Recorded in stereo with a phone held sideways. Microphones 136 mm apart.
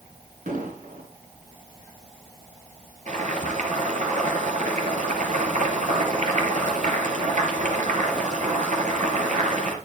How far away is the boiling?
About 3.5 m.